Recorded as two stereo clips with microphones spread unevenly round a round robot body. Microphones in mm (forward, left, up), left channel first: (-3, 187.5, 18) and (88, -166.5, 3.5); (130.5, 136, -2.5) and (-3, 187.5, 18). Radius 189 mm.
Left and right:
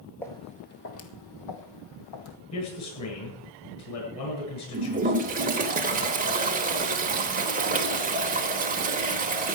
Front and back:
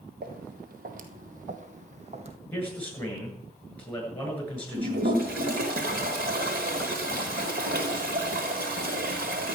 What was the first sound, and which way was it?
Footsteps, 170° right.